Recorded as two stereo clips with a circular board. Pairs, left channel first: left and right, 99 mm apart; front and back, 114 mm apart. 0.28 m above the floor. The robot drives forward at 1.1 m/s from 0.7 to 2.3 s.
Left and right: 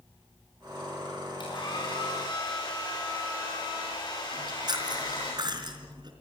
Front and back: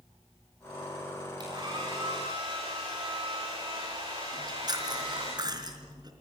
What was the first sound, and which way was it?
A hair dryer, 130° left.